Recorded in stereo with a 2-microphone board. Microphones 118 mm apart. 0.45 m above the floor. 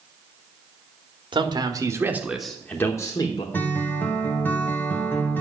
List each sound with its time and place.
1.3 s a man speaking: 45° right (ahead or behind), 1.7 m; by 3.4 s 40° left (ahead or behind), 1.6 m
3.5 s a guitar: 15° left (ahead or behind), 1.6 m